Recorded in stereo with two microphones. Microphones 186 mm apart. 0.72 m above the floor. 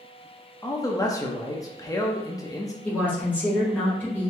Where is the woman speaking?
10° left (ahead or behind), 2.5 m.